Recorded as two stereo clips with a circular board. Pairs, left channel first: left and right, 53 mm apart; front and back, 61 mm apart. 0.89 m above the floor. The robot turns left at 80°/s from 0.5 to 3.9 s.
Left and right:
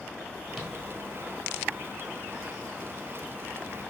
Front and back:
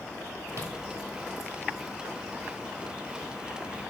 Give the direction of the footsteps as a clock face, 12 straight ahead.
6 o'clock.